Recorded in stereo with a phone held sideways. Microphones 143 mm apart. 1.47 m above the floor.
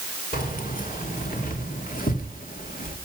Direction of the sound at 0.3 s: 70° left (ahead or behind).